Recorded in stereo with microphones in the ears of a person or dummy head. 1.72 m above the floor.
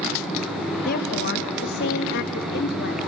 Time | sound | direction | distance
0.8 | a woman speaking | 55° left (ahead or behind) | 1.8 m